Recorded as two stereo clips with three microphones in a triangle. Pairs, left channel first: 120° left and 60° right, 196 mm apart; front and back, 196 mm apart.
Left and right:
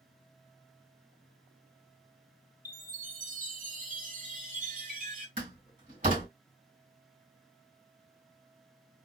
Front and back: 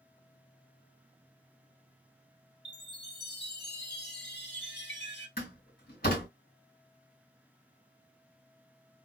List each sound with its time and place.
2.6 s a chime: 20° right, 0.9 m
5.4 s a door slam: 20° right, 2 m